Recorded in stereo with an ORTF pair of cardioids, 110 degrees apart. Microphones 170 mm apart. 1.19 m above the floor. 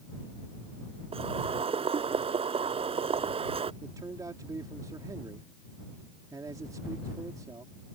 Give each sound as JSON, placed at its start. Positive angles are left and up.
{"t": 1.1, "sound": "boiling", "azimuth_deg": -35}
{"t": 3.8, "sound": "a man speaking", "azimuth_deg": -20}